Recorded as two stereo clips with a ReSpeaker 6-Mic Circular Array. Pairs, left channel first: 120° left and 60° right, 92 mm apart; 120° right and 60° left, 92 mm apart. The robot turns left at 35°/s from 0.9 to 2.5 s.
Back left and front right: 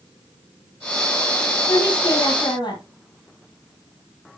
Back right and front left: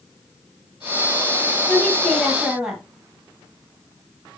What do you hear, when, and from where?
1.7 s a woman speaking: 170° left, 3 m; by 2.8 s 140° left, 3 m